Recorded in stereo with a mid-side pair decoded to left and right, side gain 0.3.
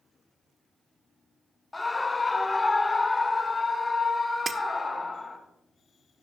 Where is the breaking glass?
60° right, 0.9 m.